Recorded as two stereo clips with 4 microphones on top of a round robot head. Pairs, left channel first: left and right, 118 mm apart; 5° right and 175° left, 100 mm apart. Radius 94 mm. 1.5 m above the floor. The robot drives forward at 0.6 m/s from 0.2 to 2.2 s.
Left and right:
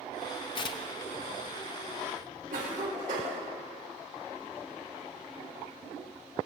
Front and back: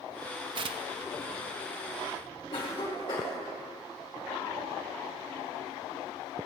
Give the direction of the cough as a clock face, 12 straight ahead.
2 o'clock.